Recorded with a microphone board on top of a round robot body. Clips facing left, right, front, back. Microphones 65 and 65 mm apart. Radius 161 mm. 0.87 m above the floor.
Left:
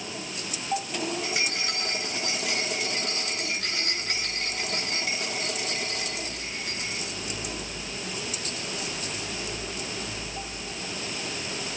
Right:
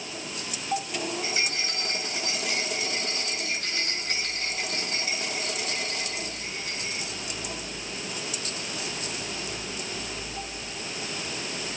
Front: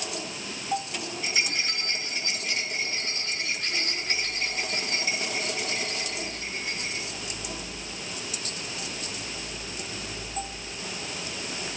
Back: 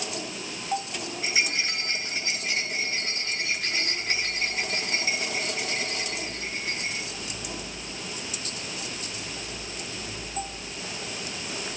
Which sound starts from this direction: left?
A rattle, at 1.2 s.